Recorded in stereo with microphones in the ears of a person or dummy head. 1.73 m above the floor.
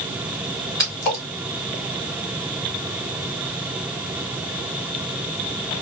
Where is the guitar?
I don't hear a guitar.